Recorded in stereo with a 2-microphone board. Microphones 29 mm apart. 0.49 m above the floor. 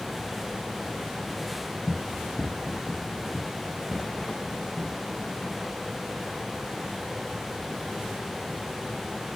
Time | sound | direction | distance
1.9 | running footsteps | 10° right (ahead or behind) | 1.4 m